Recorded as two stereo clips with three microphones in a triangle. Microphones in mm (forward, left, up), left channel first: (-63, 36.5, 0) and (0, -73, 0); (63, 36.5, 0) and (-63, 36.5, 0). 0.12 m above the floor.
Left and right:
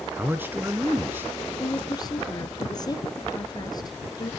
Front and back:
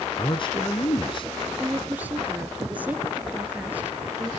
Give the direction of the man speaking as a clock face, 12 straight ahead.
12 o'clock.